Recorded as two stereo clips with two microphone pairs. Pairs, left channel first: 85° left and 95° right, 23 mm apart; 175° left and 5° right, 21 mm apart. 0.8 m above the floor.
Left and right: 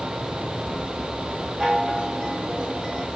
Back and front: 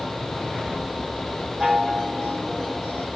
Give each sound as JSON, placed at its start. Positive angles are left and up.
{"t": 1.6, "sound": "a chime", "azimuth_deg": -75, "distance_m": 2.5}